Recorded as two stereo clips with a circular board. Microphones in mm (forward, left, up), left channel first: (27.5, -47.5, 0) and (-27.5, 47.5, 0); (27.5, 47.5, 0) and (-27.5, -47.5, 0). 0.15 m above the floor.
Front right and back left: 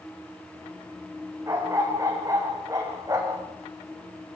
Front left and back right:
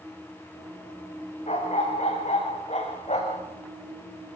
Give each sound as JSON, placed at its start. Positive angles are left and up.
{"t": 1.5, "sound": "a dog barking", "azimuth_deg": 60, "distance_m": 5.0}